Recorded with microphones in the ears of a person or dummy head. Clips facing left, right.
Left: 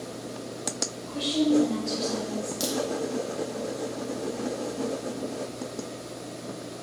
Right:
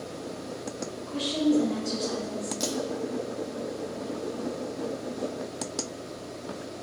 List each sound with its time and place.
1.1 s a woman speaking: 60° right (ahead or behind), 0.8 m
2.6 s a crack: 15° left (ahead or behind), 0.6 m